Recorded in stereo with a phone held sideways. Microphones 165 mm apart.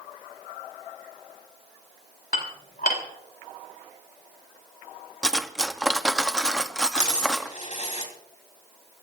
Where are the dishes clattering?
65° left (ahead or behind), 3.5 m.